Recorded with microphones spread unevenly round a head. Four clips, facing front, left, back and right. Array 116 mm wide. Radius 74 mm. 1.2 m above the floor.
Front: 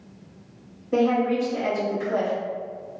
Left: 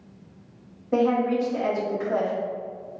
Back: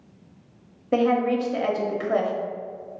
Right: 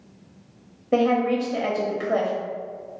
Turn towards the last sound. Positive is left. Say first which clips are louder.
# right 1 dB, even
turn(degrees=-125)